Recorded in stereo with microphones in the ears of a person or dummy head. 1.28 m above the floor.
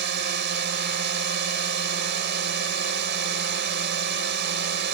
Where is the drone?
55° right (ahead or behind).